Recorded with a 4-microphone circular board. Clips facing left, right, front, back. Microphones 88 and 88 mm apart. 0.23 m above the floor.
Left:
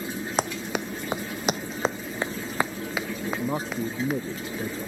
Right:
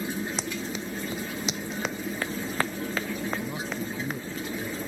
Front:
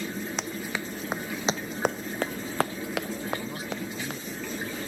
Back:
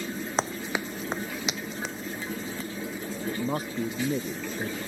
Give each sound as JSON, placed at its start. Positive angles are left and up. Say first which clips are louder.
{"t": 0.4, "sound": "running footsteps", "louder": "left 5 dB, back 3 dB", "azimuth_deg": 125}
{"t": 3.3, "sound": "a man speaking", "louder": "left 3 dB, back 3 dB", "azimuth_deg": 135}